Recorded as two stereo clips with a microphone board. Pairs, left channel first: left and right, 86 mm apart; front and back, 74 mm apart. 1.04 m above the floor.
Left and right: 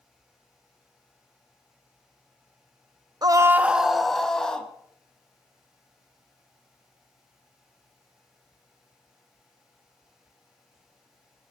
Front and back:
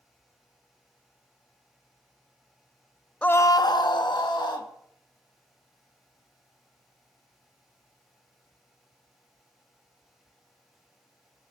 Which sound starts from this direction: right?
A scream, at 3.2 s.